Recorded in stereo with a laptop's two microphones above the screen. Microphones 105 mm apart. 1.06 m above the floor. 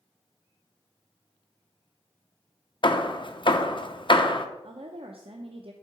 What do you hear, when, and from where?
2.8 s hammering: 50° left (ahead or behind), 0.5 m
4.6 s a woman speaking: 60° right (ahead or behind), 0.6 m